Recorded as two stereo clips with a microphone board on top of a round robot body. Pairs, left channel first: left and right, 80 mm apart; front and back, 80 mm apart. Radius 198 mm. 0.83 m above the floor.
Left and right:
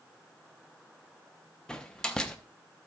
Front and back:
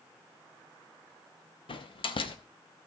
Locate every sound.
1.7 s a door slam: 10° left, 1.0 m